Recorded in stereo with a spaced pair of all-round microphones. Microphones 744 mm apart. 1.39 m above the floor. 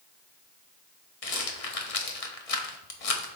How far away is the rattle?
About 1.1 m.